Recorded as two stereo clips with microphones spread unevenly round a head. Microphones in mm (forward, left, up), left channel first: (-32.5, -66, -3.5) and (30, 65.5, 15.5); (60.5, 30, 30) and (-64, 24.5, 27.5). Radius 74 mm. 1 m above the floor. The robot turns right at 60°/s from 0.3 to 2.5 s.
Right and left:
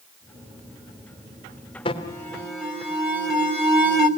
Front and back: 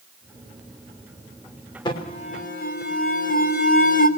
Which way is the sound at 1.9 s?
60° right.